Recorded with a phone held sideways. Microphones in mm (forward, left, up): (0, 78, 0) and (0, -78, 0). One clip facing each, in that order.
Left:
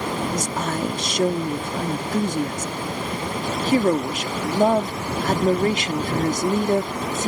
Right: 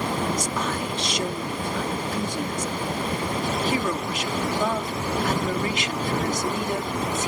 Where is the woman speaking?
45° left (ahead or behind).